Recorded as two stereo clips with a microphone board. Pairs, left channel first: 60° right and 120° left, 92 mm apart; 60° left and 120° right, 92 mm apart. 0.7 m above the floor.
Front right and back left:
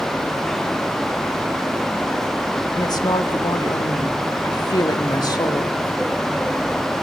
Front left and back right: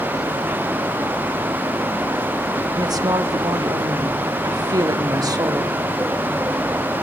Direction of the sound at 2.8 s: 90° right.